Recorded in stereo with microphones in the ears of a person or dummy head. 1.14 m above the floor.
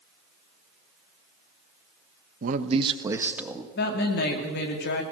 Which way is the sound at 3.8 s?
55° left (ahead or behind).